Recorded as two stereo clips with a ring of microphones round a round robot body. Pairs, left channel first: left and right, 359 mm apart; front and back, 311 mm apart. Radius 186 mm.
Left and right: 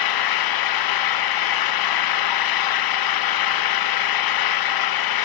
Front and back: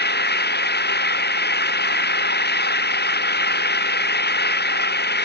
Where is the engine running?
60° left.